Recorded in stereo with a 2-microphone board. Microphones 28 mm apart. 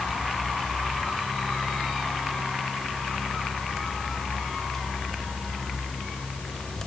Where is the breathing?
I don't hear breathing.